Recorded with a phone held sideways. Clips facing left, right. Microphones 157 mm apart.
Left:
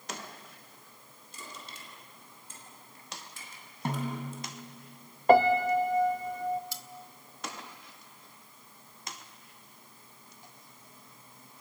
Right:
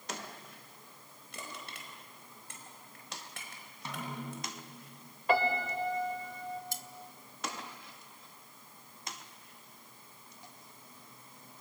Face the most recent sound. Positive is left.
turn(degrees=-50)  # may be behind; listen again after turning